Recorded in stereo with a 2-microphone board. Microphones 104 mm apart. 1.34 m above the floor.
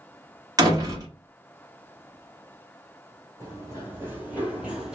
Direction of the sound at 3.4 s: 30° right (ahead or behind).